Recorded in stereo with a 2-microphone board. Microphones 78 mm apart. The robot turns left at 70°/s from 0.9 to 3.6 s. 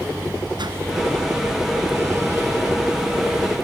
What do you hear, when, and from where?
0.6 s a whoosh: 75° right (ahead or behind), 1.9 m